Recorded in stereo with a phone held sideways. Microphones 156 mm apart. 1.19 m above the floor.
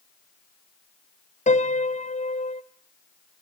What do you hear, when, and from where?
1.5 s a piano: 50° left (ahead or behind), 0.5 m